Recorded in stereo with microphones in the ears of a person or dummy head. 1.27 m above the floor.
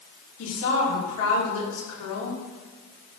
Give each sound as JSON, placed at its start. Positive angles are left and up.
{"t": 0.4, "sound": "a woman speaking", "side_deg": 80, "distance_m": 3.0}